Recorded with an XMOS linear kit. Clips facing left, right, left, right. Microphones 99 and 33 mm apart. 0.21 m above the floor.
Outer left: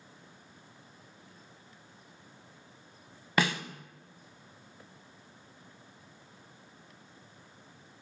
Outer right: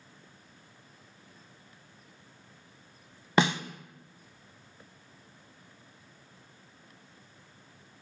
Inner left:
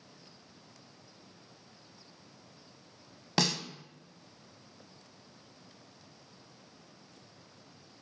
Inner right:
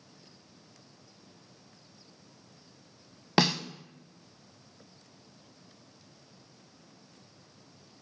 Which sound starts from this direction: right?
A snare drum, at 3.4 s.